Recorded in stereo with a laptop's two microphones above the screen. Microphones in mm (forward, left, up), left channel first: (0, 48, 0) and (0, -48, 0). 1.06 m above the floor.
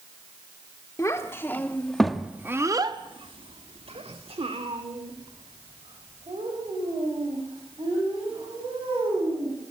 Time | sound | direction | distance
1.0 | a child speaking | 30° left (ahead or behind) | 1.6 m